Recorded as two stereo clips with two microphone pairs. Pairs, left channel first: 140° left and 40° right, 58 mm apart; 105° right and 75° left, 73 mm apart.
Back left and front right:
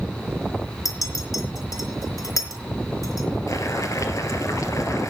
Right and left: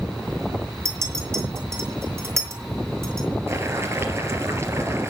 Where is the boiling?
130° left, 2 m.